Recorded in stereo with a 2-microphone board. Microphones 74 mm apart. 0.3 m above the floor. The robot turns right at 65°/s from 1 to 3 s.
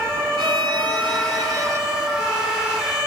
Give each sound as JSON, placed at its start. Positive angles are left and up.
{"t": 0.4, "sound": "a violin", "azimuth_deg": -90, "distance_m": 1.2}